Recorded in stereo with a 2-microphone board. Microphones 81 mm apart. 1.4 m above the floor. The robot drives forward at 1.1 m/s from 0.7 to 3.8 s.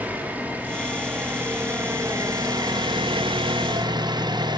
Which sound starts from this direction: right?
An engine running, at 0.0 s.